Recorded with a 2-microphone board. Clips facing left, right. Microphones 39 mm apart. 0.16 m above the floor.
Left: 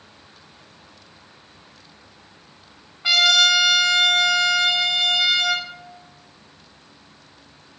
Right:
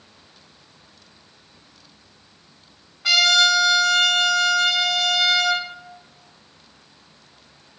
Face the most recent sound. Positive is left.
turn(degrees=20)  # may be behind; listen again after turning